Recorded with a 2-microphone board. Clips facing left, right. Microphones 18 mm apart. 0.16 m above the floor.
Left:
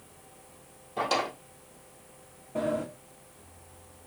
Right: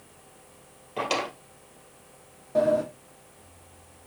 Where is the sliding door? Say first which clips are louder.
Right 7 dB; 85° right, 1.5 m.